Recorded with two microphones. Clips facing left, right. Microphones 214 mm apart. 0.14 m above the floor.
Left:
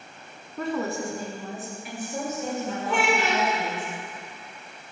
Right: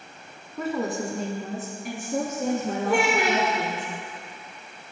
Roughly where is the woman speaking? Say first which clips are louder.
Right 1 dB; centre.